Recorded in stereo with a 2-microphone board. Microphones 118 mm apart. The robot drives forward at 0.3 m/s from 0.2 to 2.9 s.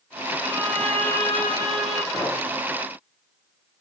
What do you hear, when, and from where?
0.4 s a violin: 60° right (ahead or behind), 1.9 m; by 2.0 s 65° right (ahead or behind), 1.8 m
2.1 s a clink: 5° left (ahead or behind), 6.5 m